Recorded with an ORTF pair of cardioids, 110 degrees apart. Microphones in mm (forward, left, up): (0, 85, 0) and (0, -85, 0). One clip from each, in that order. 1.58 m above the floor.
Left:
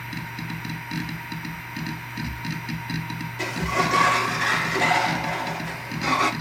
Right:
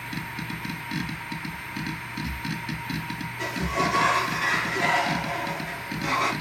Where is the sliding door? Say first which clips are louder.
Left 3 dB; 50° left, 2 m.